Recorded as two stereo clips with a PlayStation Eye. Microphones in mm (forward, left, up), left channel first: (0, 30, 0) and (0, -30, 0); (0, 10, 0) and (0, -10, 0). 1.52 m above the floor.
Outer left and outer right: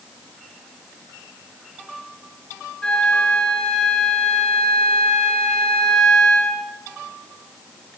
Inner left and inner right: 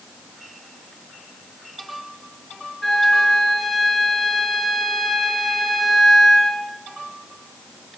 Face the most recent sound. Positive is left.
turn(degrees=15)  # may be behind; listen again after turning